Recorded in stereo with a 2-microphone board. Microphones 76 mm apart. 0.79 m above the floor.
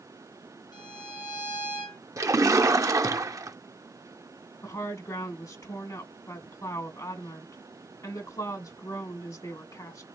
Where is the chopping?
No chopping in this recording.